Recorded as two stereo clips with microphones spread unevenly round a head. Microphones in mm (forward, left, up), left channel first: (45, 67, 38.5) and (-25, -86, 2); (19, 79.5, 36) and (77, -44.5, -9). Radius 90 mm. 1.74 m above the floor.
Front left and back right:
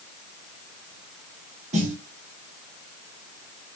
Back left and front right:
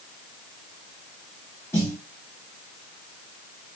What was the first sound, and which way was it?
A snare drum, 170° right.